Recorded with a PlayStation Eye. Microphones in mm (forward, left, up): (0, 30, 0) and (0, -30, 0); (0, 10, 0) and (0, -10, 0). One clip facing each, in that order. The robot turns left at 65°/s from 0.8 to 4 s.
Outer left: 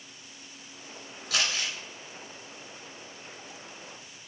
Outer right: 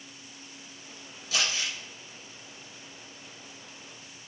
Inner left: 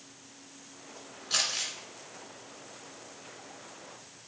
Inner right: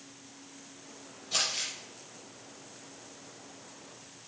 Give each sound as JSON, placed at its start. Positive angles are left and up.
{"t": 1.3, "sound": "crumpling", "side_deg": 85, "distance_m": 2.0}